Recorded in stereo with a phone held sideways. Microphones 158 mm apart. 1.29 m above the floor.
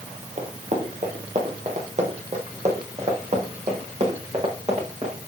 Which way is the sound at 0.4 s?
50° right (ahead or behind).